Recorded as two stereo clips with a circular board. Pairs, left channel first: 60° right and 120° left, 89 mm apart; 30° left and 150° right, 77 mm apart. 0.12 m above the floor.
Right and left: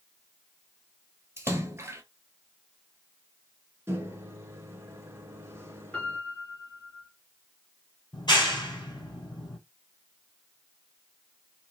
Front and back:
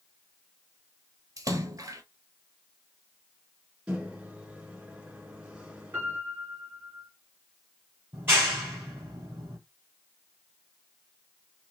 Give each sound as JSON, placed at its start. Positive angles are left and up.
{"t": 1.4, "sound": "a splash", "azimuth_deg": 175, "distance_m": 0.8}
{"t": 3.9, "sound": "a microwave", "azimuth_deg": 150, "distance_m": 0.9}
{"t": 5.9, "sound": "a piano", "azimuth_deg": -115, "distance_m": 1.8}
{"t": 8.1, "sound": "a clap", "azimuth_deg": -95, "distance_m": 2.0}